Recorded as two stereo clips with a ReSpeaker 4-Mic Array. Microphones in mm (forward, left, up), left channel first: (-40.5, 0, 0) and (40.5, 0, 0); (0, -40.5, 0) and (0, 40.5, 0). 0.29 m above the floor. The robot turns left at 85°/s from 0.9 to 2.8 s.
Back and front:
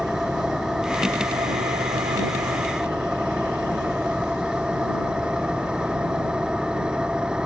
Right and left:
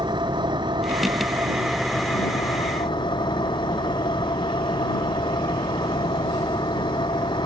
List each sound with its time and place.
0.0 s an engine running: 80° left; by 7.5 s 80° right